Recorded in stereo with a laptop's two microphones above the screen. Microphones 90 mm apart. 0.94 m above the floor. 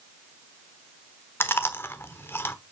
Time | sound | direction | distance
1.4 | chewing | 30° left (ahead or behind) | 1.0 m